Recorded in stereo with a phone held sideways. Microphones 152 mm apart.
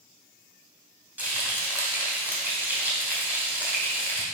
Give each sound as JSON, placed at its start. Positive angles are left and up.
{"t": 1.2, "sound": "frying", "side_deg": -10, "distance_m": 1.8}